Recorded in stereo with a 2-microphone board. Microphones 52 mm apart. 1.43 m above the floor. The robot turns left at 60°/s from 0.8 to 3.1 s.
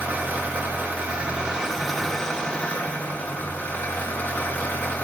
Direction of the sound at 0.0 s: 115° right.